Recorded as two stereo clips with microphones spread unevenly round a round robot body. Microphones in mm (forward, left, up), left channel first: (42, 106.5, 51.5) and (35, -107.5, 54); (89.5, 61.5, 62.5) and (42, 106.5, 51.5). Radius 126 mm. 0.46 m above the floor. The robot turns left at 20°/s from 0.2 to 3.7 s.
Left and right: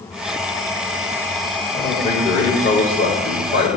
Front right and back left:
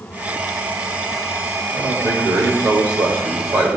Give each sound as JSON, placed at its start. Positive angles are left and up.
{"t": 1.7, "sound": "a man speaking", "azimuth_deg": 150, "distance_m": 1.9}